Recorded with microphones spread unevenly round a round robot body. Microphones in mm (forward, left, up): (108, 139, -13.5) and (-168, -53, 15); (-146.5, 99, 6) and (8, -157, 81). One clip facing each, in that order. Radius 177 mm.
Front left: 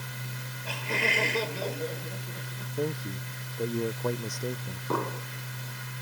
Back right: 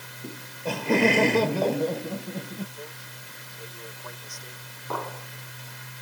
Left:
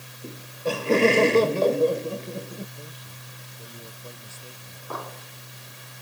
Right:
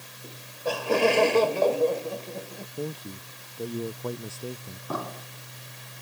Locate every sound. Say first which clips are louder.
0.2 s laughter: back right 14 dB, left 3 dB; straight behind; by 2.7 s 165° right
2.8 s a man speaking: front left 13 dB, right 12 dB; 15° right
4.9 s an explosion: front left 4 dB, right 3 dB; 35° right